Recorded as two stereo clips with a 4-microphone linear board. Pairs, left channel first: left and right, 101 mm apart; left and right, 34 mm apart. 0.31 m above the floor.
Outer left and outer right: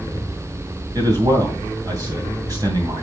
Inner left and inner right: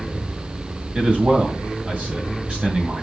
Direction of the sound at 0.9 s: 40° right (ahead or behind).